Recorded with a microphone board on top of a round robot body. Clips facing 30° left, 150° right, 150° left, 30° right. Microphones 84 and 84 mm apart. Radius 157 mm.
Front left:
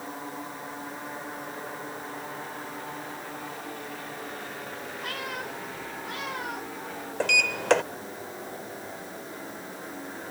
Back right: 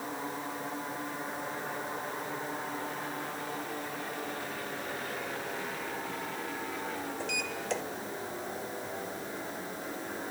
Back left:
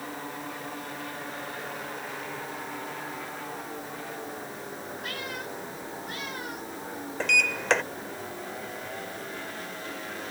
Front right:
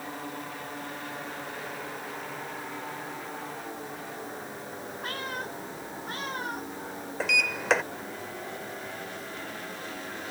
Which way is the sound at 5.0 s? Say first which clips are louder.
Front left 2 dB, front right 3 dB; 25° left.